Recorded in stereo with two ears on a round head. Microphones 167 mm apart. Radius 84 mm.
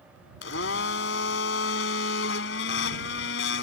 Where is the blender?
70° left (ahead or behind).